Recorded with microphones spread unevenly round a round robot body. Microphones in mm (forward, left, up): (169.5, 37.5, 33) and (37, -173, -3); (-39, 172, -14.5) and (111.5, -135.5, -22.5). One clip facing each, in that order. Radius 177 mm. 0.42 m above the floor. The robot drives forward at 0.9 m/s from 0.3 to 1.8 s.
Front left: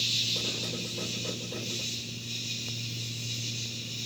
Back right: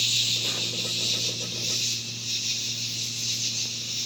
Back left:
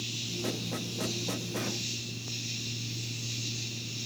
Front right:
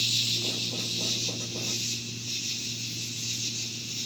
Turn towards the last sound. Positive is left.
turn(degrees=-130)